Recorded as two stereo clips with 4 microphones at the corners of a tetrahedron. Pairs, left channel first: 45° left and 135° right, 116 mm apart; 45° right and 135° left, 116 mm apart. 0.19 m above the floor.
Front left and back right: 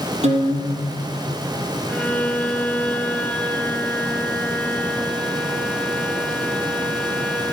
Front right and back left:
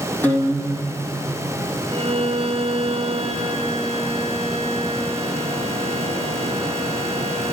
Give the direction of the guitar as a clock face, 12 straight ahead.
4 o'clock.